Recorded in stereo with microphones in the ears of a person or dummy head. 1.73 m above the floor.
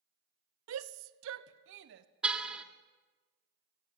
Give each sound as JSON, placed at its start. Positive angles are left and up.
{"t": 0.7, "sound": "a shout", "side_deg": -85, "distance_m": 0.8}
{"t": 2.2, "sound": "a car horn", "side_deg": -5, "distance_m": 2.0}